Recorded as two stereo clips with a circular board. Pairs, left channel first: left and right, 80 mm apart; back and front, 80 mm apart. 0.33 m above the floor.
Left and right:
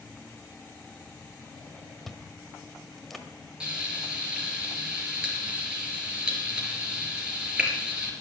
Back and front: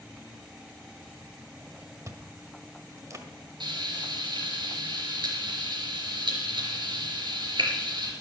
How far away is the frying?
About 4 m.